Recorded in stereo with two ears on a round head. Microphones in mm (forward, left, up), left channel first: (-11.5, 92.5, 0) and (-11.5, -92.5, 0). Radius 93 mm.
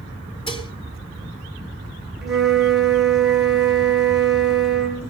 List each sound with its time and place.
0.5 s dishes clattering: 30° left (ahead or behind), 2 m
2.2 s a flute: 5° right (ahead or behind), 2.5 m